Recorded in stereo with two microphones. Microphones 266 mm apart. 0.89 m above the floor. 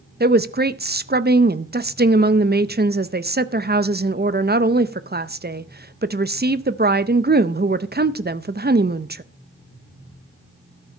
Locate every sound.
0.2 s a woman speaking: 35° right (ahead or behind), 0.6 m